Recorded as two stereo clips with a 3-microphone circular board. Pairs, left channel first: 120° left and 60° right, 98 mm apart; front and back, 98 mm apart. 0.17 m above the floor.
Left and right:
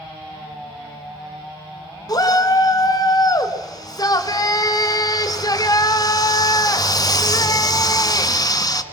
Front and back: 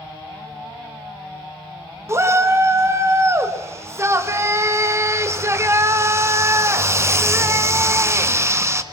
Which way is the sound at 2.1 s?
135° left.